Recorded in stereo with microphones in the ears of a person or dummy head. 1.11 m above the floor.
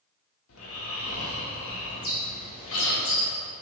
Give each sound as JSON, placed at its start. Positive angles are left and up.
{"t": 0.5, "sound": "snoring", "side_deg": 75, "distance_m": 1.7}
{"t": 1.9, "sound": "a bird", "side_deg": 40, "distance_m": 1.3}